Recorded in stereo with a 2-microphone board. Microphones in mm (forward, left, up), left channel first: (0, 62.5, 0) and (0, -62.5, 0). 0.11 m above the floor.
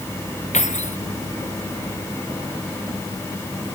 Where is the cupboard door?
I don't hear a cupboard door.